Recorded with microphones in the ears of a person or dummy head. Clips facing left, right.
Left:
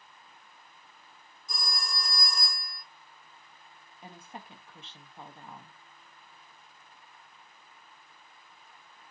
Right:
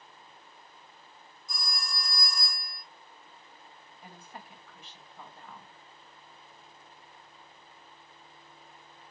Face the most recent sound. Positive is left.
turn(degrees=25)  # may be behind; listen again after turning